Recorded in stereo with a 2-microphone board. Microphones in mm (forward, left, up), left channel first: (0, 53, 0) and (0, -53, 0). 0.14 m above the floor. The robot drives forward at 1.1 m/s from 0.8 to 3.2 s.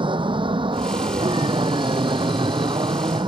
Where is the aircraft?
50° right (ahead or behind); by 3.3 s 45° right (ahead or behind).